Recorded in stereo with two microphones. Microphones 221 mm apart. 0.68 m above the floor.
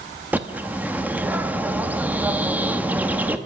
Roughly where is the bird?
Centre.